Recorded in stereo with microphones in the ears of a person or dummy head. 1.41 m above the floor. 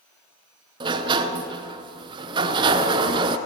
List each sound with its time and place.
0.8 s a sliding door: 25° right (ahead or behind), 0.8 m